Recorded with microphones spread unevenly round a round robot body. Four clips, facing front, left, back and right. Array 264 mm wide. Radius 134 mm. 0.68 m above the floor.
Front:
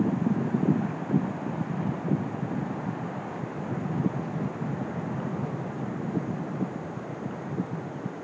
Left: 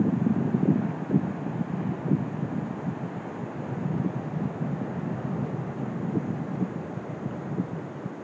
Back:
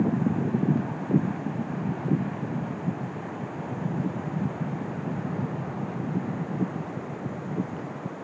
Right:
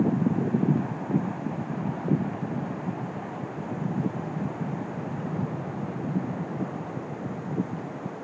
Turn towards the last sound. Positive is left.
No sound to turn to.